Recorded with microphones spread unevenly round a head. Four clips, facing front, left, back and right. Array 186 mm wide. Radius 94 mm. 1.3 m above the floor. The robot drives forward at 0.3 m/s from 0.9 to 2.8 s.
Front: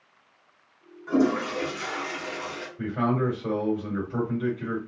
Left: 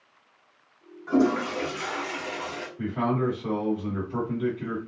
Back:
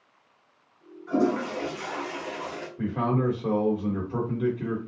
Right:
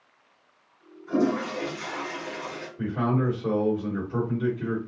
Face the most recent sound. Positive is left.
turn(degrees=-170)